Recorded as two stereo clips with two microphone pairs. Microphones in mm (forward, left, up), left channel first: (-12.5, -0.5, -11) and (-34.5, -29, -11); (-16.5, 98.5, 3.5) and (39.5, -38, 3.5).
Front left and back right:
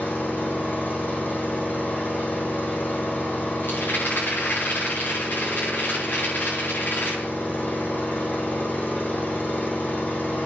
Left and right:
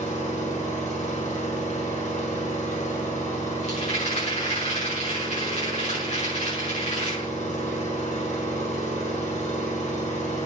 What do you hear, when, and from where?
0.0 s an engine running: 80° left, 4 m
3.6 s a rattle: 70° left, 6 m